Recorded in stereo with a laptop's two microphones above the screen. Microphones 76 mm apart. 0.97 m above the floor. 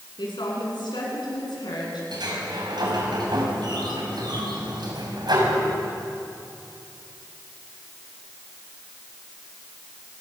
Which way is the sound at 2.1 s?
70° right (ahead or behind).